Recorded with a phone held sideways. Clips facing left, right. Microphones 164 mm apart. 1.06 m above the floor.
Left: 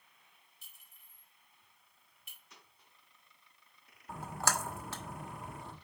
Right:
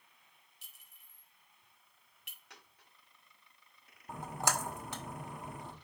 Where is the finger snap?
No finger snap in this recording.